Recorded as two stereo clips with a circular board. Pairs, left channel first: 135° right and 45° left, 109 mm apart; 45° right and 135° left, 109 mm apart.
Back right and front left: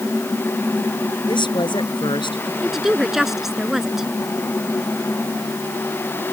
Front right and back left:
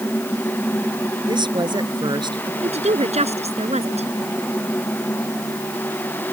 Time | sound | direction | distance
1.3 | a woman speaking | straight behind | ?
2.6 | a woman speaking | 130° left | ?